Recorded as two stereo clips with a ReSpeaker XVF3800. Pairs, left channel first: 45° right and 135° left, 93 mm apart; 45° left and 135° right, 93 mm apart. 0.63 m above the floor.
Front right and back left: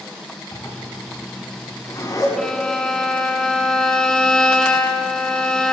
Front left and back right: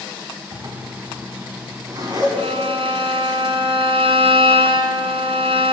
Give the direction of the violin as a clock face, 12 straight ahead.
4 o'clock.